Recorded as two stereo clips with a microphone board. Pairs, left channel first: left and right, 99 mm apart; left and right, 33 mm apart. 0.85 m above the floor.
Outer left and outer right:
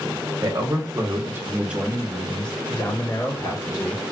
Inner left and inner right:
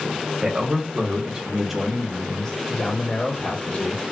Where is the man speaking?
45° right (ahead or behind), 1.2 m; by 4.0 s 40° left (ahead or behind), 1.6 m.